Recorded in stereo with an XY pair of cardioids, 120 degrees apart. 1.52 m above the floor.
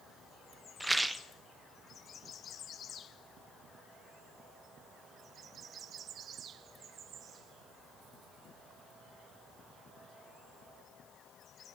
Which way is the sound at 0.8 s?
5° right.